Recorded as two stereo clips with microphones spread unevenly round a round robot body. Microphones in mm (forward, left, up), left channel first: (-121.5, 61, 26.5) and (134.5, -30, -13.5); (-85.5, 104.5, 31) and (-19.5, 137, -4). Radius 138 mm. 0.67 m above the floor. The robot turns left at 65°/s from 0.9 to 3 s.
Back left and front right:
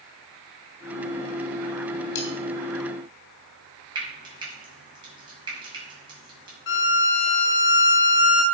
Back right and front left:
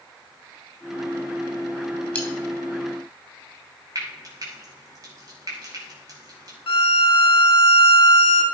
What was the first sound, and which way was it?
Cutlery clinking, 135° left.